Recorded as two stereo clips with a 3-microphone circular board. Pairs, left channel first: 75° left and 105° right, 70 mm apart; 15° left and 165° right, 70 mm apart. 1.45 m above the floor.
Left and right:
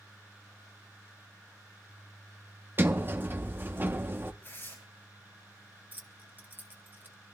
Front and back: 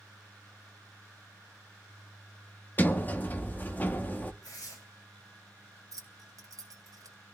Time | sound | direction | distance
2.8 | a sliding door | 50° right | 0.8 m
4.4 | tearing paper | 20° left | 7 m
5.9 | keys jangling | 160° right | 1.0 m